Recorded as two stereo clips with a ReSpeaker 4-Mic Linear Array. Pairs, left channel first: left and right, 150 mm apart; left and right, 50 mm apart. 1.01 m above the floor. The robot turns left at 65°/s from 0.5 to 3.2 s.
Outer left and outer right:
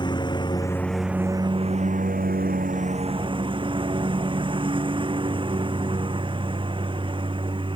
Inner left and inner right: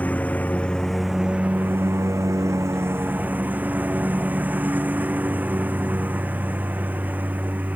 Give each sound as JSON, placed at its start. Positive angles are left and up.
{"t": 0.0, "sound": "a lawn mower", "azimuth_deg": 30}